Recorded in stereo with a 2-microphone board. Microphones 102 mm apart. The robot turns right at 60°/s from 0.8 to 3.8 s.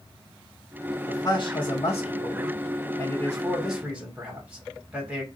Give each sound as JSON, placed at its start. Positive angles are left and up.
{"t": 1.1, "sound": "a man speaking", "azimuth_deg": 30, "distance_m": 1.8}